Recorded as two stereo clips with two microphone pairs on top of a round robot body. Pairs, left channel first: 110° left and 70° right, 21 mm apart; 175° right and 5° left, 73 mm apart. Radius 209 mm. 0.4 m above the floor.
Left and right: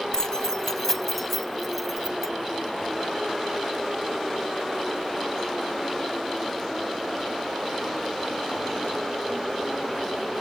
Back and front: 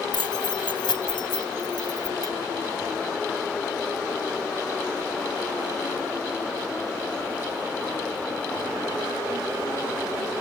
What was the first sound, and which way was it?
Keys jangling, 170° left.